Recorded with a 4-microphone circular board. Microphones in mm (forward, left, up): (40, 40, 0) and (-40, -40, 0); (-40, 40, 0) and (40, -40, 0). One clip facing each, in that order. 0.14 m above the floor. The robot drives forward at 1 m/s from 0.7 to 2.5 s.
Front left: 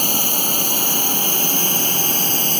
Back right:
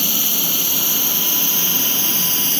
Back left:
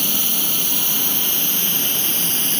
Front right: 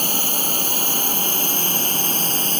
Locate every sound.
0.0 s a drone: straight ahead